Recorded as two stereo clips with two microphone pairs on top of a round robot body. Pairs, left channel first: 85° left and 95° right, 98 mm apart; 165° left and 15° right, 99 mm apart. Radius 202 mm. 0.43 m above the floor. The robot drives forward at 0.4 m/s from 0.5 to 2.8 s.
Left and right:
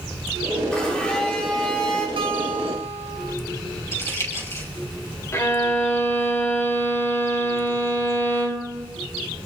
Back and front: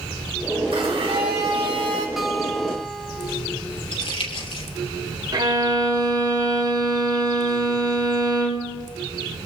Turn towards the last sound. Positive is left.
turn(degrees=25)